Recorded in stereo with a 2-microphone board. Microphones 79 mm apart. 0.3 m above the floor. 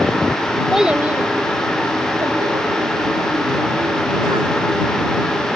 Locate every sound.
0.7 s a child speaking: 5° right (ahead or behind); by 4.6 s 75° right (ahead or behind)